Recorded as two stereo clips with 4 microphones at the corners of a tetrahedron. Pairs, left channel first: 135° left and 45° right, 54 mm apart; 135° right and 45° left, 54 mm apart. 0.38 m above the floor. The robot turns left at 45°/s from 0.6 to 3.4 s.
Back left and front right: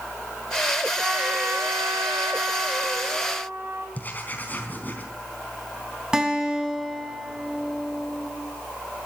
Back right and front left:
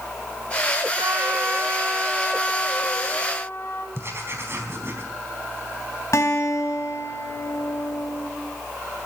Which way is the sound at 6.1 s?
120° right.